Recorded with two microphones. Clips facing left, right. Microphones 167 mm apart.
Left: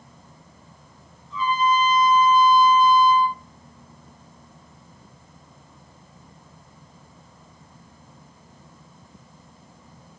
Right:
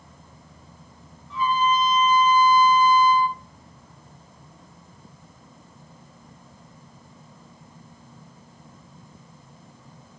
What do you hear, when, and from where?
1.3 s a trumpet: 75° right (ahead or behind), 2.5 m